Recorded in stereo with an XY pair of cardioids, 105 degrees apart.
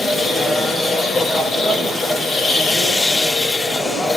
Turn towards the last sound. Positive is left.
turn(degrees=25)